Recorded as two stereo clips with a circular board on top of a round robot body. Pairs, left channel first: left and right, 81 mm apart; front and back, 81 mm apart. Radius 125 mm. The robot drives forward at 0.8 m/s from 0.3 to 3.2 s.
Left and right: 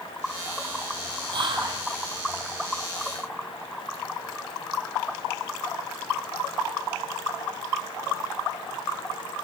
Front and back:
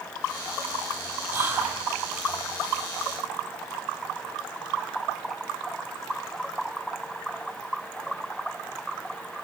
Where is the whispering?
115° right, 7.5 m; by 1.8 s 120° right, 7.5 m.